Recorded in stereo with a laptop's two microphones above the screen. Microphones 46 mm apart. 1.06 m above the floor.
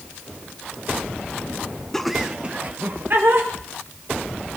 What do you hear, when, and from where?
1.9 s laughter: 10° left (ahead or behind), 0.6 m; by 3.5 s 50° right (ahead or behind), 1.7 m